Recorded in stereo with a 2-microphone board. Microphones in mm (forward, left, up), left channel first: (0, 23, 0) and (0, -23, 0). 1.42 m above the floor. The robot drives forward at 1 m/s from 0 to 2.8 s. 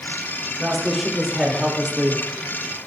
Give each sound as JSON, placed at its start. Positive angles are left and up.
{"t": 0.6, "sound": "a woman speaking", "side_deg": -5, "distance_m": 4.0}